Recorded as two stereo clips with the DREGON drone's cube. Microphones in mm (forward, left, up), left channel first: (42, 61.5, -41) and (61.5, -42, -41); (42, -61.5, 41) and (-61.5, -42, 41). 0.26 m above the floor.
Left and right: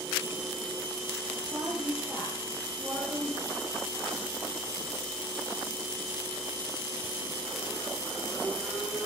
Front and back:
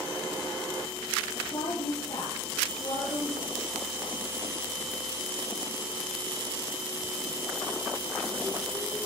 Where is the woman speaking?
15° right, 7.5 m.